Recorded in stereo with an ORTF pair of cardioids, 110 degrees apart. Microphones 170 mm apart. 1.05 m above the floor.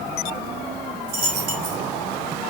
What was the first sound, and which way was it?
A dropped coin, 60° right.